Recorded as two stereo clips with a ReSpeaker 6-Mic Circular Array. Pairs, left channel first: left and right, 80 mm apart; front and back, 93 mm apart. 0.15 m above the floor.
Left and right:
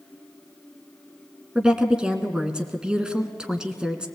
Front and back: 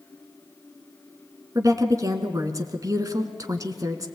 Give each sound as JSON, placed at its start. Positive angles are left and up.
{"t": 1.6, "sound": "a woman speaking", "azimuth_deg": -165, "distance_m": 1.6}